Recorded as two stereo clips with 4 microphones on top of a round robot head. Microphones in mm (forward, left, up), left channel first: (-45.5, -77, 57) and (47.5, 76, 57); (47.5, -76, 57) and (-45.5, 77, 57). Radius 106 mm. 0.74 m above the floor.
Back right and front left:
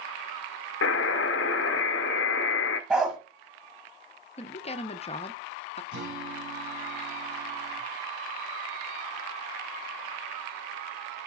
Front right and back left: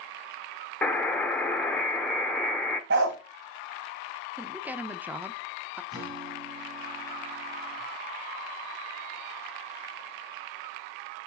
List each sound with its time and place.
0.8 s a buzzer: 145° right, 0.6 m
2.9 s a dog barking: 145° left, 1.0 m
4.4 s a woman speaking: 160° right, 0.7 m
5.9 s a guitar: 50° left, 3.5 m